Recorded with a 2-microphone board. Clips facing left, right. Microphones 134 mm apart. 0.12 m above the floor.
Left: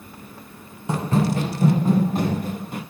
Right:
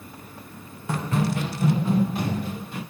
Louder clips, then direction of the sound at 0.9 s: Left 4 dB; 25° left (ahead or behind).